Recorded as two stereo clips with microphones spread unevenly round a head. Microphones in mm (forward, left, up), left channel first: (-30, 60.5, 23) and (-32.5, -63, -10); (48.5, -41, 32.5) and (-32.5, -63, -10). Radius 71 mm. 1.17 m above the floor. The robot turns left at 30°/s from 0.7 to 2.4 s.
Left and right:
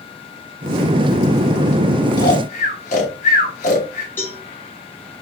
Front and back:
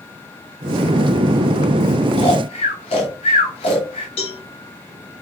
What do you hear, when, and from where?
2.2 s snoring: 55° left, 2.5 m; by 4.1 s 50° left, 2.5 m
4.2 s a cowbell: 10° left, 2.5 m